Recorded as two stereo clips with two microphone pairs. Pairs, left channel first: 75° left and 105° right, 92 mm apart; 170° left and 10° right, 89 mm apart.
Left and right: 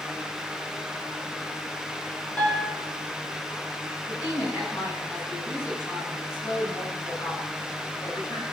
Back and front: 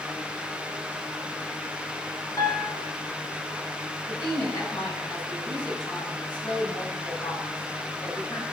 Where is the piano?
140° left, 1.6 m.